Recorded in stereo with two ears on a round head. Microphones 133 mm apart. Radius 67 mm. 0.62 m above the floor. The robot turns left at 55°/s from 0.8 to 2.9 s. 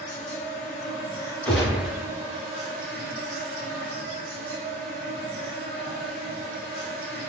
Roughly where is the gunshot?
Centre.